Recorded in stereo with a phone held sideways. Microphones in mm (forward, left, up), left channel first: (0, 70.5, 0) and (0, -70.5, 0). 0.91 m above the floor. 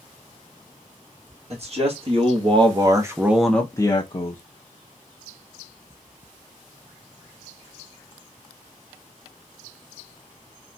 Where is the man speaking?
50° right (ahead or behind), 1.4 m; by 4.4 s 50° left (ahead or behind), 0.7 m.